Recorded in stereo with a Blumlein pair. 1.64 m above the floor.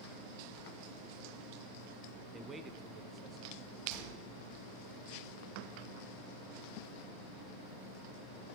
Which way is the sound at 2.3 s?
15° right.